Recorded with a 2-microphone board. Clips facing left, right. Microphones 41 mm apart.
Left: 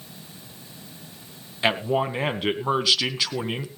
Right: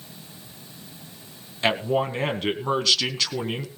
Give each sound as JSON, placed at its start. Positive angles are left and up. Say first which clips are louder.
{"t": 1.6, "sound": "a man speaking", "louder": "even", "side_deg": 10, "distance_m": 1.6}